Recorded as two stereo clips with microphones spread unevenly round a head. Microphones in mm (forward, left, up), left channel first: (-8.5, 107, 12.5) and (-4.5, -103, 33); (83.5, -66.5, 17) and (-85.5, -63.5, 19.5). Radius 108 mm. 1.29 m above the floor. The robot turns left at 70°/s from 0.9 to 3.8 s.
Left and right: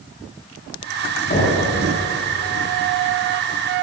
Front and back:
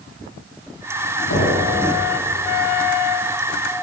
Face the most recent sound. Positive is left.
turn(degrees=-140)